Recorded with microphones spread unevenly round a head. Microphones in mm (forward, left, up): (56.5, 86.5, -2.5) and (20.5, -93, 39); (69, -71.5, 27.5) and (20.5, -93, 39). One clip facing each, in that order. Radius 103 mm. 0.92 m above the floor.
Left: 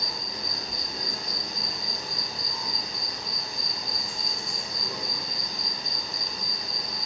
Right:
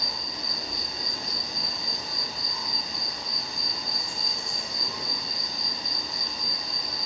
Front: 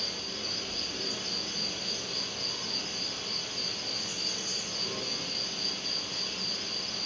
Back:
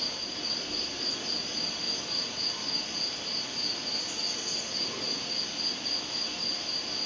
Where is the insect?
170° left, 2 m.